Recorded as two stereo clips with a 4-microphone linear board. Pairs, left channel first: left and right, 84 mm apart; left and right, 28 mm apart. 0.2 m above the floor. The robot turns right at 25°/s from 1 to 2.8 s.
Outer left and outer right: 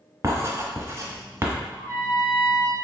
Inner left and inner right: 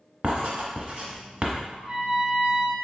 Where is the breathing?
No breathing in this recording.